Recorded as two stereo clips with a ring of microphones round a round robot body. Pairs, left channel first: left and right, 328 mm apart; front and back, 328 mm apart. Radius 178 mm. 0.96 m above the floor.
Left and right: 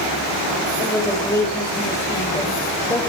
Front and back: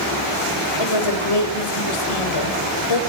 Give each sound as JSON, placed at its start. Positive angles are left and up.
{"t": 0.8, "sound": "a woman speaking", "azimuth_deg": 10, "distance_m": 4.0}